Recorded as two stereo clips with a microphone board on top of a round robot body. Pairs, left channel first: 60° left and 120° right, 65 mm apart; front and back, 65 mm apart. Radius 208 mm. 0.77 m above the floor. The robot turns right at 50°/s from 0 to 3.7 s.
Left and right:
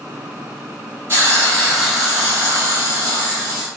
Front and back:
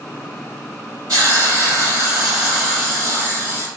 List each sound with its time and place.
1.1 s a hiss: 170° right, 0.6 m; by 3.7 s 40° right, 0.6 m